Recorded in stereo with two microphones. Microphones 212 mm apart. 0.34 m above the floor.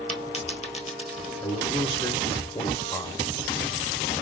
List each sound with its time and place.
0.1 s a dropped coin: 35° left (ahead or behind), 1.2 m
1.4 s a man speaking: 20° left (ahead or behind), 0.9 m